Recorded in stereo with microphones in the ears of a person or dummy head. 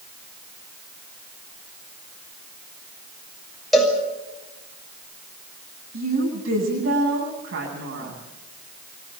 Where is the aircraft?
No aircraft in this recording.